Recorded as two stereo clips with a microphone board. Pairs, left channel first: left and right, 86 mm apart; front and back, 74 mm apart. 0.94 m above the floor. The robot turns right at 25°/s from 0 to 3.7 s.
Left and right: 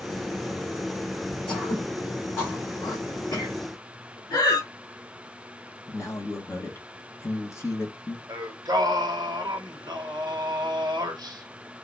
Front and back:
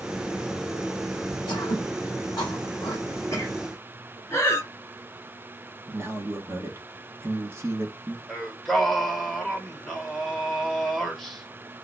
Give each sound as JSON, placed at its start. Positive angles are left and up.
{"t": 1.5, "sound": "throat clearing", "azimuth_deg": 5, "distance_m": 2.0}
{"t": 4.3, "sound": "breathing", "azimuth_deg": 50, "distance_m": 2.0}
{"t": 5.9, "sound": "a man speaking", "azimuth_deg": 135, "distance_m": 1.1}
{"t": 8.3, "sound": "singing", "azimuth_deg": -85, "distance_m": 0.7}